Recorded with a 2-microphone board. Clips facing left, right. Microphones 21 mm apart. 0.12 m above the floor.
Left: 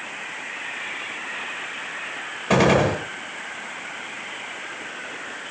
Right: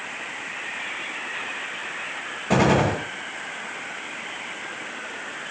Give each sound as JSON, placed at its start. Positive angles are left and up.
{"t": 2.5, "sound": "a gunshot", "side_deg": 20, "distance_m": 9.5}